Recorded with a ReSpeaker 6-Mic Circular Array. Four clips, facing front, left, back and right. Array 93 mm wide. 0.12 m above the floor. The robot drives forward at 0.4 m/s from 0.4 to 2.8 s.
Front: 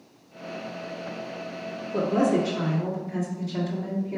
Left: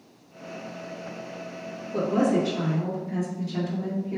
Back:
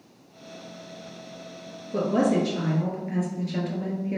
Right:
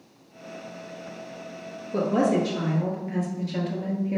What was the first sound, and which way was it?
A woman speaking, 140° right.